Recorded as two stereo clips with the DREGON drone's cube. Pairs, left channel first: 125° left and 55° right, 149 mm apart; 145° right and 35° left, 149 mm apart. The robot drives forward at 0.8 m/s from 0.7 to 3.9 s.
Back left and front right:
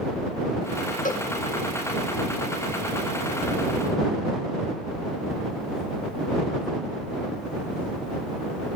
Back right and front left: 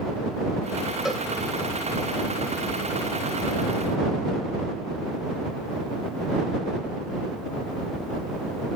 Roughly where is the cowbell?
Behind left.